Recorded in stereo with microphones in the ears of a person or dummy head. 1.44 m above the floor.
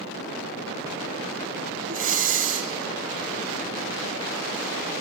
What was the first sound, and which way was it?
Breathing, 40° right (ahead or behind).